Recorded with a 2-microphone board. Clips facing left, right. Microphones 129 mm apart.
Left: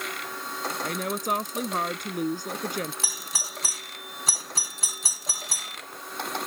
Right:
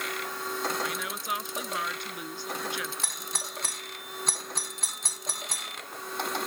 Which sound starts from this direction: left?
A woman speaking, at 0.8 s.